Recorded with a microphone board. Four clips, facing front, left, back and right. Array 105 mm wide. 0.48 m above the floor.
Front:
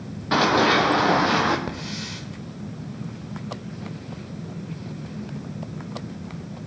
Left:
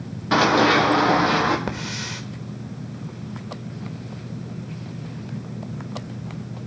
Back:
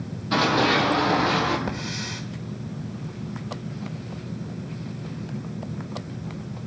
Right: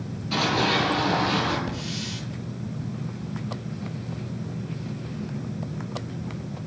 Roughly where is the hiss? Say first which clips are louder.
Left 2 dB, back 1 dB; left.